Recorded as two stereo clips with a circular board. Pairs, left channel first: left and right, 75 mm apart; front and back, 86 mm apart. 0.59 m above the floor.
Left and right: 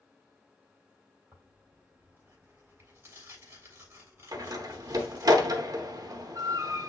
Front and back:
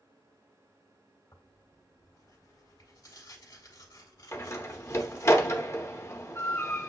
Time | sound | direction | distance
1.3 | tearing paper | 40° right | 2.5 m
4.3 | a door slam | 55° right | 0.8 m